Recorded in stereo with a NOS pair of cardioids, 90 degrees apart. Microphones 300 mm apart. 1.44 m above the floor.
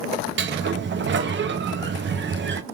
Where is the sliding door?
40° right, 0.7 m.